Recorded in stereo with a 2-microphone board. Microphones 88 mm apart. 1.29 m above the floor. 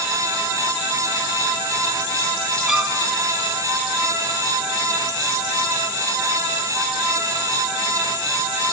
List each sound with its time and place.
2.7 s a violin: 5° right (ahead or behind), 2 m